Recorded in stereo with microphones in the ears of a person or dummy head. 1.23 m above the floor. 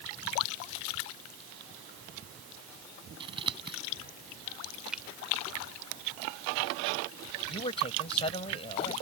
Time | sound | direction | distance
3.2 | scissors | 30° right (ahead or behind) | ?
4.9 | a finger snap | 5° right (ahead or behind) | ?
7.5 | a man speaking | 35° left (ahead or behind) | ?